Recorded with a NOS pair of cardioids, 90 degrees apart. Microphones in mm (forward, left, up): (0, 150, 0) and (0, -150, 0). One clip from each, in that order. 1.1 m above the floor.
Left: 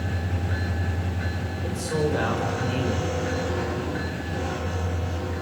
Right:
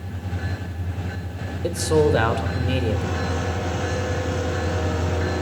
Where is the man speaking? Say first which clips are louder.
Right 8 dB; 65° right, 5.5 m.